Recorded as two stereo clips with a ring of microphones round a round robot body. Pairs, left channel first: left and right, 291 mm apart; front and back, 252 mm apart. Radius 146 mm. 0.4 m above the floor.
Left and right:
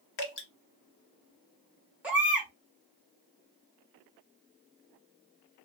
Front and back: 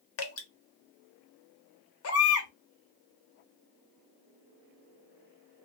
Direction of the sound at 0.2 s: 35° left.